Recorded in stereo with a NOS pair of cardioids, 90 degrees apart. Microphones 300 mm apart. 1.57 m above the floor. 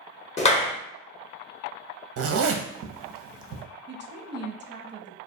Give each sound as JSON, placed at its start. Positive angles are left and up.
{"t": 0.4, "sound": "a clap", "azimuth_deg": 20, "distance_m": 0.7}
{"t": 2.2, "sound": "a zipper", "azimuth_deg": -50, "distance_m": 0.5}
{"t": 3.9, "sound": "a woman speaking", "azimuth_deg": -40, "distance_m": 0.5}